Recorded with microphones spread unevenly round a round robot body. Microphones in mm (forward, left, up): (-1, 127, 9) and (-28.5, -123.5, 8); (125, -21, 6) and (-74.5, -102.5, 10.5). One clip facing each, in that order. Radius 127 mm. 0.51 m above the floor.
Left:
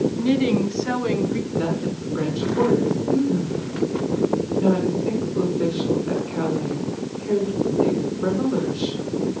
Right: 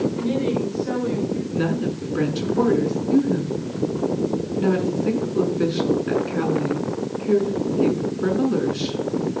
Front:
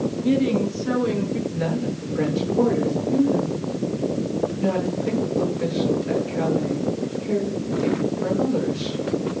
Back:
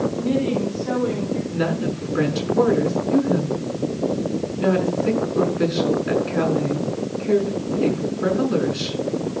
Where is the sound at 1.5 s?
145° right, 7 m.